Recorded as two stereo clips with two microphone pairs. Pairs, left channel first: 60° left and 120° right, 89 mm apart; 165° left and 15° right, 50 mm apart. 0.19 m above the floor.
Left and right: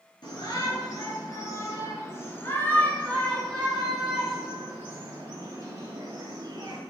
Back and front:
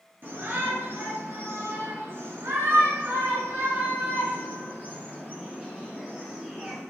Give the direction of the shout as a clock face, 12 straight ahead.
11 o'clock.